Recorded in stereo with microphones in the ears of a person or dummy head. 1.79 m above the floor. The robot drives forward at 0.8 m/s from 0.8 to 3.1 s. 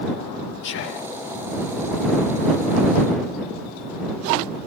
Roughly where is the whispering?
Left.